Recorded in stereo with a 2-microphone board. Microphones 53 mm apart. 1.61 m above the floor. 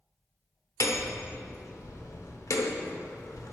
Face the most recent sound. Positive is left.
turn(degrees=70)  # may be behind; listen again after turning